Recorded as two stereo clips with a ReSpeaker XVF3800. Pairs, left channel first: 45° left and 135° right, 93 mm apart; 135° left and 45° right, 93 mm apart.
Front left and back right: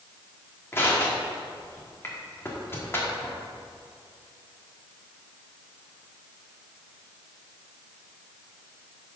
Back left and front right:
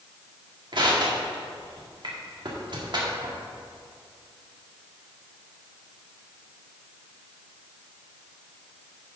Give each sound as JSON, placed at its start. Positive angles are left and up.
{"t": 0.7, "sound": "crushing", "azimuth_deg": -20, "distance_m": 1.8}